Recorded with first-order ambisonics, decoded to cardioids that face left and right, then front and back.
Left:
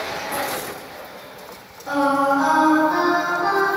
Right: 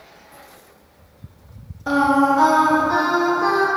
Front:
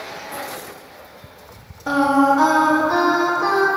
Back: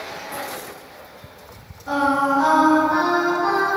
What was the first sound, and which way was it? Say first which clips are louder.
Singing: right 2 dB, front 3 dB; 35° right.